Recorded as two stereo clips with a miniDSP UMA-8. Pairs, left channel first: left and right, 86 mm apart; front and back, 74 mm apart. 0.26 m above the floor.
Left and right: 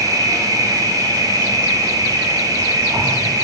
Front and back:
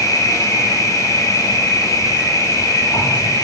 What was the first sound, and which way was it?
An insect, 45° right.